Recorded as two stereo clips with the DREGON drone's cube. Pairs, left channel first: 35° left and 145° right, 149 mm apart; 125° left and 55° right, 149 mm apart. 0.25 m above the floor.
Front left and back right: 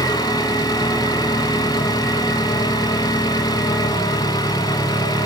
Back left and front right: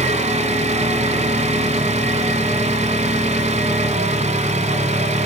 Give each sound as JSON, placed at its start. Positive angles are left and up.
{"t": 0.0, "sound": "an engine running", "azimuth_deg": -30, "distance_m": 1.5}